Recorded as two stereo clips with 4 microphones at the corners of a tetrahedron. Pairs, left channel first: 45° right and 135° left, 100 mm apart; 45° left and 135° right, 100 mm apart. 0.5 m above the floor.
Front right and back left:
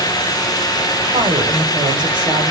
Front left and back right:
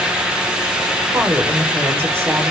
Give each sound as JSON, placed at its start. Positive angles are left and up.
{"t": 1.1, "sound": "a woman speaking", "azimuth_deg": 165, "distance_m": 2.5}